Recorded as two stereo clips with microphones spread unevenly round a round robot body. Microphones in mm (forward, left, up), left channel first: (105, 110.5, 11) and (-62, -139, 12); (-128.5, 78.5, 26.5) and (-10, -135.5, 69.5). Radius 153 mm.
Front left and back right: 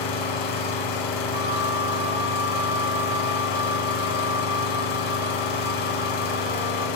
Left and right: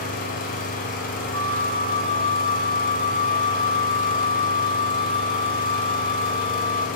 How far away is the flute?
About 1.1 m.